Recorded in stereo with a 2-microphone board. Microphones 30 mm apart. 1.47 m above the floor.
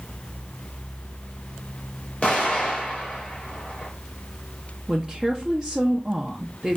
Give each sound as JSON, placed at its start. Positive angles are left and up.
{"t": 2.2, "sound": "an explosion", "side_deg": 40, "distance_m": 1.7}
{"t": 4.9, "sound": "a woman speaking", "side_deg": -25, "distance_m": 0.5}